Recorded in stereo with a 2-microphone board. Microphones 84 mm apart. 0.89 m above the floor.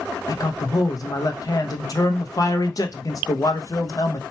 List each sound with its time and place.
0.3 s a man speaking: 45° left (ahead or behind), 0.6 m